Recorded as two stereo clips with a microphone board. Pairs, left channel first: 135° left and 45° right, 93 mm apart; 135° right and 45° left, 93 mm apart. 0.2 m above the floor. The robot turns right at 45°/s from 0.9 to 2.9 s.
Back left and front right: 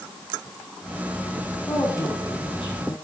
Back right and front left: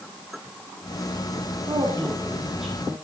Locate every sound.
1.7 s a woman speaking: 85° left, 8 m; by 3.0 s 140° left, 8 m